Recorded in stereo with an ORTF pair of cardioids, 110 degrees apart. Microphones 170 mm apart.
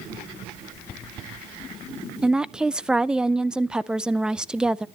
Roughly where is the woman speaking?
Ahead.